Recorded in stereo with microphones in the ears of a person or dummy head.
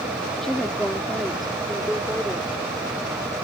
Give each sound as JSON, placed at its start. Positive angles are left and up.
{"t": 0.4, "sound": "a woman speaking", "side_deg": 0}